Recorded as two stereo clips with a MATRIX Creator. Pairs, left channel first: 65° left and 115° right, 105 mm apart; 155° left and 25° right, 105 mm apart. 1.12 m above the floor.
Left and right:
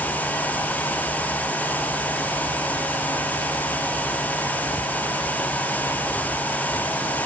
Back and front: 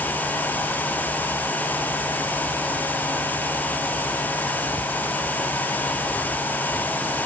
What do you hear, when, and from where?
Only background noise.